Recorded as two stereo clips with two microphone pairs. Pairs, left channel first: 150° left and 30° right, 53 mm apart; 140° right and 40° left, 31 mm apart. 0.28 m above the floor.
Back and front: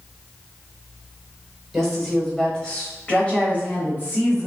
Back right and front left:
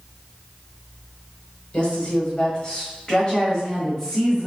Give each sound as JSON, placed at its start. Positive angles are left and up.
{"t": 1.7, "sound": "a woman speaking", "azimuth_deg": -125, "distance_m": 1.6}